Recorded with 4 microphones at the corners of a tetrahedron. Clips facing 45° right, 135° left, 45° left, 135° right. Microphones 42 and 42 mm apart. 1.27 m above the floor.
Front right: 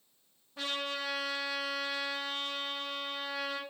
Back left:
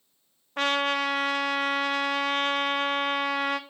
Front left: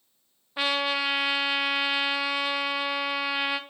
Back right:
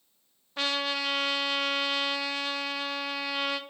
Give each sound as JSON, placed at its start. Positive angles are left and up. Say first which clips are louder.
{"t": 0.6, "sound": "a trumpet", "louder": "back left 11 dB, front left 4 dB", "azimuth_deg": 120, "distance_m": 0.6}